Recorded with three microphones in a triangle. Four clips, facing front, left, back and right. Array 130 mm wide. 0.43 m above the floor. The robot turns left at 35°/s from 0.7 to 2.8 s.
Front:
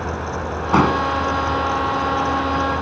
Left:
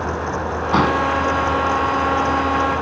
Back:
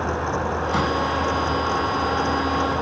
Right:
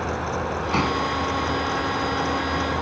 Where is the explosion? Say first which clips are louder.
Left 7 dB, front 8 dB; 25° left; by 1.1 s 10° left.